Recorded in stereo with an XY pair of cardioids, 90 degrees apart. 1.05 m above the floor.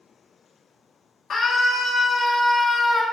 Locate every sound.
1.3 s a scream: 60° left, 2 m; by 3.0 s 25° left, 1.8 m